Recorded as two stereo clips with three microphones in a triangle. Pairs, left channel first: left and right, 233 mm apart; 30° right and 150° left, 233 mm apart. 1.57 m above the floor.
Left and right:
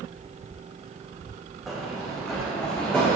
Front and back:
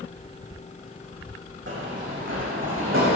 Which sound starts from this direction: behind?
Running footsteps, at 1.7 s.